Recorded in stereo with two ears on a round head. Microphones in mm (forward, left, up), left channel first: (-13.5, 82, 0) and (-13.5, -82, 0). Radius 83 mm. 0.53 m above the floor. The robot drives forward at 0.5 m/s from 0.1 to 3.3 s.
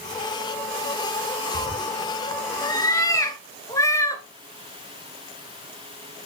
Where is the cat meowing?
30° left (ahead or behind), 1.4 m; by 4.2 s 20° left (ahead or behind), 2 m.